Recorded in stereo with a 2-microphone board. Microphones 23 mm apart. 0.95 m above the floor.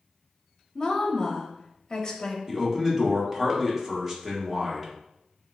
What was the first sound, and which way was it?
A woman speaking, 30° left (ahead or behind).